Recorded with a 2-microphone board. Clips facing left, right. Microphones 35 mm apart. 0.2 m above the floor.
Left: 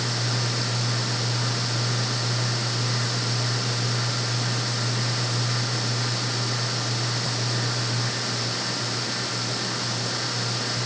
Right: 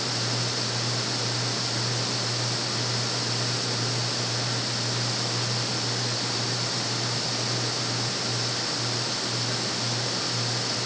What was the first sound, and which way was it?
Only background noise.